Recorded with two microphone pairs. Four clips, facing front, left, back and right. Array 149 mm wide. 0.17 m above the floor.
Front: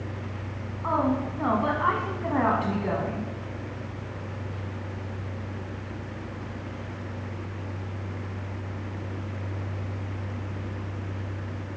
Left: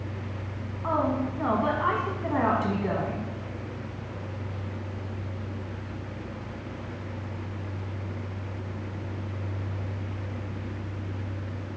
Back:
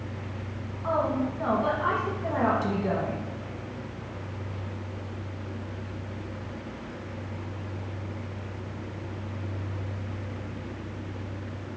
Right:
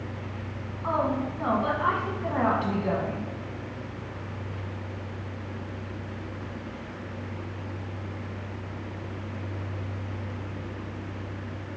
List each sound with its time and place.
0.8 s a woman speaking: 5° left, 1.1 m